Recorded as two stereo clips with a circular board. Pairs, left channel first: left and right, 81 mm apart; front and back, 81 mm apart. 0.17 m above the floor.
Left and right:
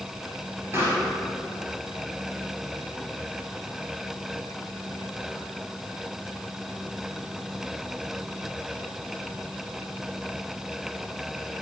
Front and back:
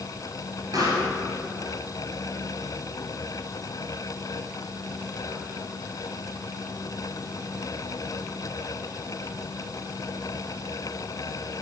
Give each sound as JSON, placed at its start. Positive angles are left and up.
{"t": 0.7, "sound": "a pop", "azimuth_deg": -145, "distance_m": 2.5}